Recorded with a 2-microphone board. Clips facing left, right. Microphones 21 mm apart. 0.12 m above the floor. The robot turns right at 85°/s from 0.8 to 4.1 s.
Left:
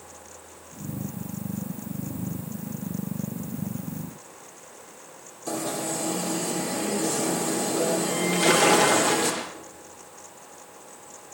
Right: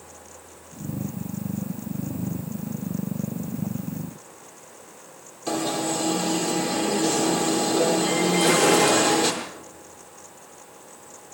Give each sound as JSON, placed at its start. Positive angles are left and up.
{"t": 5.5, "sound": "an alarm", "side_deg": -40, "distance_m": 4.0}
{"t": 8.3, "sound": "a splash", "side_deg": 35, "distance_m": 6.5}